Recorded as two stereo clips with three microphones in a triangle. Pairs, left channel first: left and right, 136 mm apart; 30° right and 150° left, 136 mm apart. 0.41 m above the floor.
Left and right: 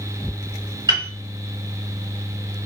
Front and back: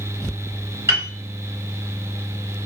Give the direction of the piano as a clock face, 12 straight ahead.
5 o'clock.